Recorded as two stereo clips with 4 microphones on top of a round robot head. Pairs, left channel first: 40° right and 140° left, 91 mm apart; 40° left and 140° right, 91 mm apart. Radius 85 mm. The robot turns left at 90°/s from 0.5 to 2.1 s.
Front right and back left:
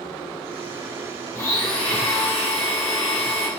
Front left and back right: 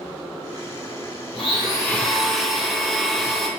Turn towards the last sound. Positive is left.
turn(degrees=-45)